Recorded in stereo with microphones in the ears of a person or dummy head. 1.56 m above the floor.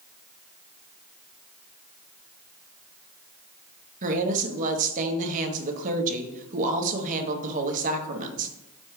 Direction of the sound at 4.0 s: 45° right (ahead or behind).